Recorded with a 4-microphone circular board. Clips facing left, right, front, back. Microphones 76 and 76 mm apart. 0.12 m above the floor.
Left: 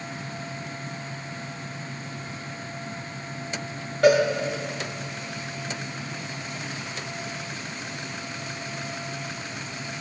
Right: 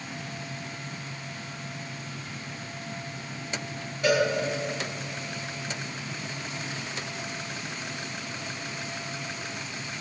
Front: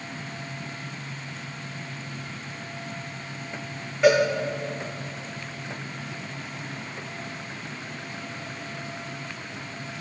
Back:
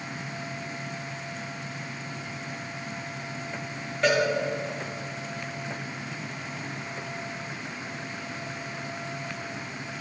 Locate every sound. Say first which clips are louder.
4.0 s a cowbell: left 6 dB, front 5 dB; 85° left, 5.5 m